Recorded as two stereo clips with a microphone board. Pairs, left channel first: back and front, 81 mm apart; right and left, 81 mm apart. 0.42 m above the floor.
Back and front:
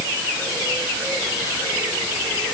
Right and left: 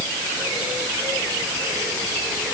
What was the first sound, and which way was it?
Only background noise.